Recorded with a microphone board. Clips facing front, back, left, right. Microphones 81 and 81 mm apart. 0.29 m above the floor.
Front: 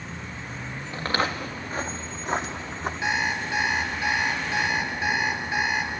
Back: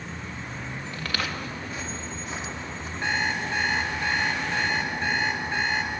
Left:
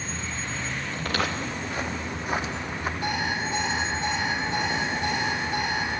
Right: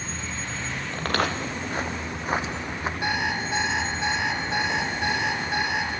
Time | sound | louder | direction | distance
0.9 | footsteps | front 6 dB, right 3 dB | 60° right | 2 m
3.0 | an alarm clock | even, right 2 dB | 80° right | 3 m